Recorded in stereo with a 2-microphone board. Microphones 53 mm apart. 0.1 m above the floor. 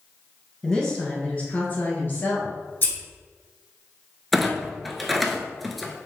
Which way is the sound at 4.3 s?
Centre (ahead or behind).